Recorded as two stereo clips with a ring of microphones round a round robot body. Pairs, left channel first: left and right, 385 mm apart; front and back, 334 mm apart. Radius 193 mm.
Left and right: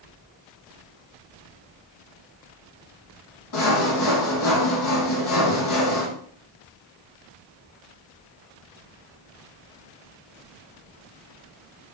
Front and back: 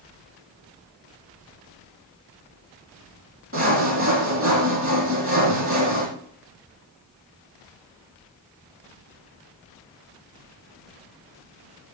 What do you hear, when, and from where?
3.5 s sawing: 130° left, 5 m